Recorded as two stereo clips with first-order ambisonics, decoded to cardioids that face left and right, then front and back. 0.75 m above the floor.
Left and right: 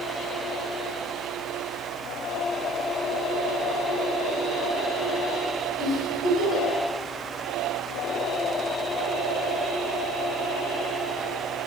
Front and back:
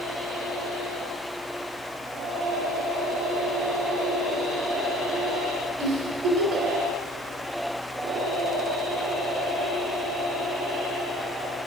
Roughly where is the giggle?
Behind.